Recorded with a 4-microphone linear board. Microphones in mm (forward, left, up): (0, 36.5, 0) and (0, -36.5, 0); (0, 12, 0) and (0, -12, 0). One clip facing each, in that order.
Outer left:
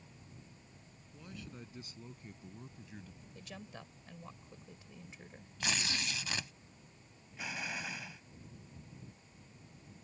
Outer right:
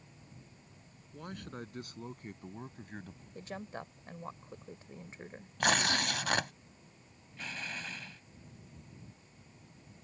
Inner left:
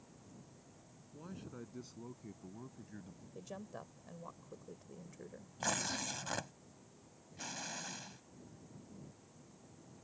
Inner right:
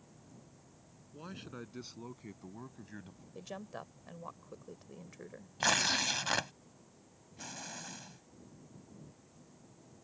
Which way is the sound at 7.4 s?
10° left (ahead or behind).